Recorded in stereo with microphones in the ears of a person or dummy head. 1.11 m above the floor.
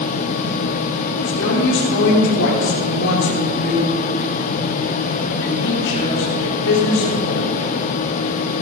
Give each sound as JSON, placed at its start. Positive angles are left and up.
{"t": 1.2, "sound": "a woman speaking", "side_deg": 75, "distance_m": 3.0}